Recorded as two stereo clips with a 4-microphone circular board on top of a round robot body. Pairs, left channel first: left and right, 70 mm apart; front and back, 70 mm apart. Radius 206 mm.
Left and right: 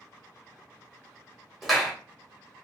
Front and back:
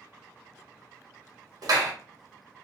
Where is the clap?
Straight behind, 1.2 m.